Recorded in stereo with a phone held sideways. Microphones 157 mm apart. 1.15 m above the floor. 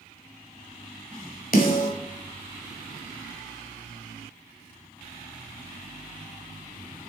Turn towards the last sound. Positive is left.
turn(degrees=60)  # may be behind; listen again after turning